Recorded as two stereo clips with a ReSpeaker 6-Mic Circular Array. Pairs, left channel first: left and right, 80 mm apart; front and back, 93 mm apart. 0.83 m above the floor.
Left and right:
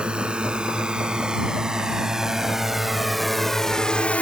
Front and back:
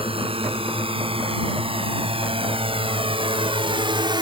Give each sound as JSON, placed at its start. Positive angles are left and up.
{"t": 0.0, "sound": "a drone", "azimuth_deg": -170}